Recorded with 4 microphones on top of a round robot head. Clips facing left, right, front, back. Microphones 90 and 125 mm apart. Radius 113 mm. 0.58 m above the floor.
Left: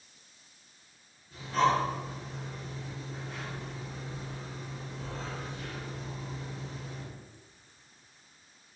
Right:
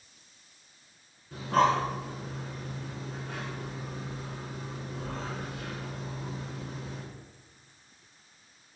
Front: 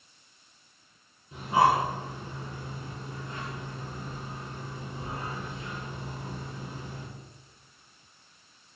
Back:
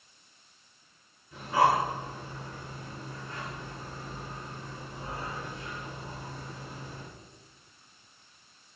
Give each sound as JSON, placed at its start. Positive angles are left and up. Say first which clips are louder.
{"t": 1.3, "sound": "breathing", "louder": "right 2 dB, front 1 dB", "azimuth_deg": -70, "distance_m": 6.5}